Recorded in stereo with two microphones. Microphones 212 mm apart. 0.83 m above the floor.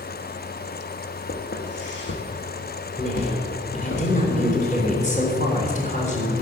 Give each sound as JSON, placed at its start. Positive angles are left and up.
{"t": 1.3, "sound": "footsteps", "side_deg": 60, "distance_m": 2.5}
{"t": 3.0, "sound": "a woman speaking", "side_deg": 35, "distance_m": 3.5}